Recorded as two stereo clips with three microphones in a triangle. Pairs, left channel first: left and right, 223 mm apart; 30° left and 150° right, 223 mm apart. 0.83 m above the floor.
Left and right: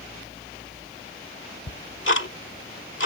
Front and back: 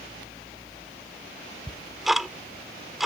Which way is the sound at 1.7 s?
120° left.